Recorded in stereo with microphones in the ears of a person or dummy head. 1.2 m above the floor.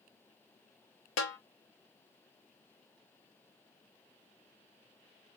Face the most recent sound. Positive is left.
turn(degrees=75)  # may be behind; listen again after turning